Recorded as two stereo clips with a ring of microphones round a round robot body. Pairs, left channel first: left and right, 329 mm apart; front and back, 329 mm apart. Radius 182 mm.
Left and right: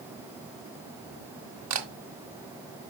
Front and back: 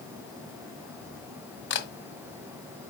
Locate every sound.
1.7 s a camera shutter: 55° right, 1.5 m